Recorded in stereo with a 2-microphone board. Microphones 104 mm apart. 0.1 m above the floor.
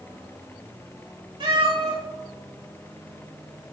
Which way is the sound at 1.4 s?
50° right (ahead or behind).